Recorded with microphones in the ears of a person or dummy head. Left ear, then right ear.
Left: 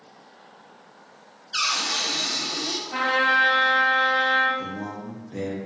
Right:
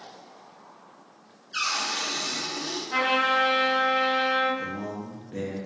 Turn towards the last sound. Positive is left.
turn(degrees=-5)  # may be behind; listen again after turning